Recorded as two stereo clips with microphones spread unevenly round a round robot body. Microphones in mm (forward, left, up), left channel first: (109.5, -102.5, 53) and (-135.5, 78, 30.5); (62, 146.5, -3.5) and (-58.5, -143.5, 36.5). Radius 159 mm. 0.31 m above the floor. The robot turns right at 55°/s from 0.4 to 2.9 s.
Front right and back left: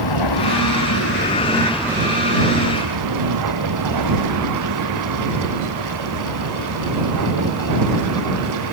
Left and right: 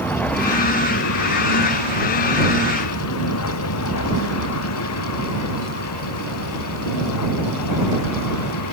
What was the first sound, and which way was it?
A vehicle, 20° right.